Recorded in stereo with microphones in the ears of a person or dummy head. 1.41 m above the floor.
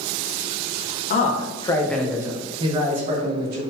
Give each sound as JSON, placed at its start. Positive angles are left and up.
{"t": 1.1, "sound": "a man speaking", "side_deg": 45, "distance_m": 0.7}